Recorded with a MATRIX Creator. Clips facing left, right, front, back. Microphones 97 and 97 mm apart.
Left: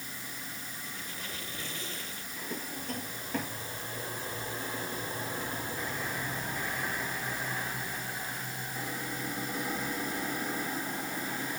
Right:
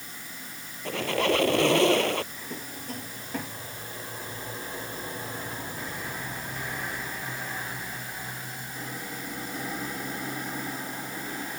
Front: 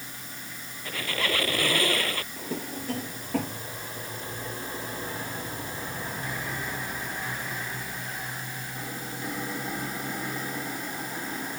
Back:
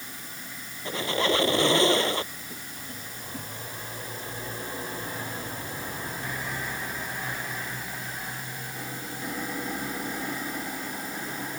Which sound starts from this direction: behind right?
A squeak, at 0.8 s.